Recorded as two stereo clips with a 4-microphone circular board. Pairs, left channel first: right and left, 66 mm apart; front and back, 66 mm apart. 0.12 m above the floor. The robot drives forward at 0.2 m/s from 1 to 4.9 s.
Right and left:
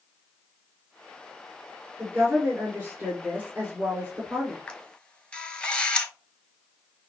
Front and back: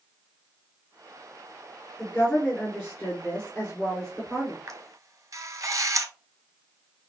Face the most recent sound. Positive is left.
turn(degrees=-160)